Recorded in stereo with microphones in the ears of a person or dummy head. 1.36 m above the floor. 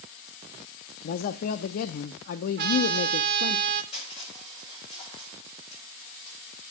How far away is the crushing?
About 7 m.